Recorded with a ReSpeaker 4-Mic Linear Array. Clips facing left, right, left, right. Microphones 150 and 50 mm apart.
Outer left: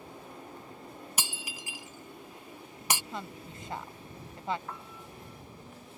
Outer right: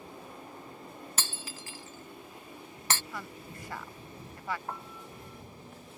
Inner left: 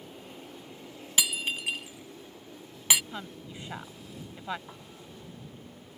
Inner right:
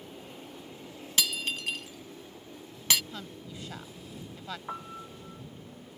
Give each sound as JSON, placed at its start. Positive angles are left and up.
{"t": 1.2, "sound": "breaking glass", "side_deg": 15}
{"t": 3.1, "sound": "a woman speaking", "side_deg": 25}
{"t": 4.7, "sound": "a piano", "side_deg": -40}